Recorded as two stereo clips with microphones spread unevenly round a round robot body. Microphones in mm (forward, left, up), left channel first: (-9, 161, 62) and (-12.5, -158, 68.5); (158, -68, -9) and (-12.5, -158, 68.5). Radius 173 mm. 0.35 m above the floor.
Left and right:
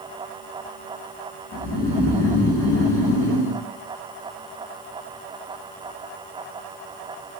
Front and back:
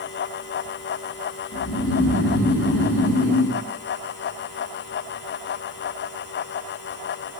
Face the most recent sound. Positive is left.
turn(degrees=55)